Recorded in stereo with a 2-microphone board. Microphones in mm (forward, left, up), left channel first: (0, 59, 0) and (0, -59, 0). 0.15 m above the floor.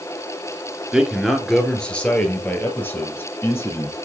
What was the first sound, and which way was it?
A man speaking, 5° right (ahead or behind).